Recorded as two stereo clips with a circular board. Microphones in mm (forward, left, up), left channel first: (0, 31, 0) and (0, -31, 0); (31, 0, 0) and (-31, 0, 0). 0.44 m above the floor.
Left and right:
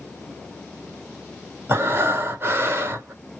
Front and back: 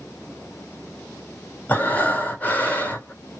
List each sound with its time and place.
1.7 s breathing: 55° right, 1.2 m